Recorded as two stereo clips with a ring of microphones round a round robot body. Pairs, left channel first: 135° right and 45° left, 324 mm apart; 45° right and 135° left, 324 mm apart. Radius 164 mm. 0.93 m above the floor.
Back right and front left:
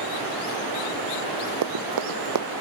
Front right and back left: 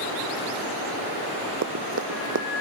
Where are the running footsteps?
80° left.